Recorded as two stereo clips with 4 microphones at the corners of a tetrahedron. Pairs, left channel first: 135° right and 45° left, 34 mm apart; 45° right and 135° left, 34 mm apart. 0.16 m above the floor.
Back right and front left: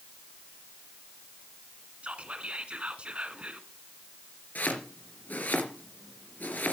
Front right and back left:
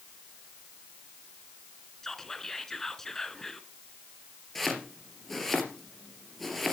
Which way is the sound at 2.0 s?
25° left.